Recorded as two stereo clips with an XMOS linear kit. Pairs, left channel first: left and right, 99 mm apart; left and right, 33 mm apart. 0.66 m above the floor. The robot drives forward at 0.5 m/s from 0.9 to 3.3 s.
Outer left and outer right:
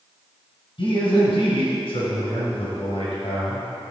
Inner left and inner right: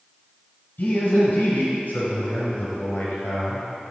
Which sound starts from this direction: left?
A man speaking, at 0.8 s.